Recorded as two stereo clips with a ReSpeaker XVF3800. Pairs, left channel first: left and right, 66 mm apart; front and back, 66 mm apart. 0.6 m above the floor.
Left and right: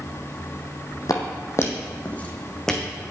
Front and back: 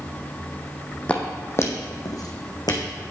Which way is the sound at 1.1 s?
70° left.